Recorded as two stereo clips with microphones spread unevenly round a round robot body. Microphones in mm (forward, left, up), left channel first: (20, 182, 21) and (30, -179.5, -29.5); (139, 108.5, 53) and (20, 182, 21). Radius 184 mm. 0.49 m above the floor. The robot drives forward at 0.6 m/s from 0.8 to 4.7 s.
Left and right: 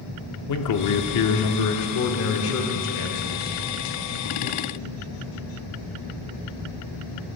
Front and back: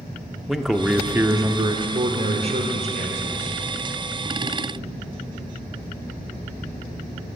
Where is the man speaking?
75° left, 0.9 m; by 4.6 s 165° left, 2.5 m.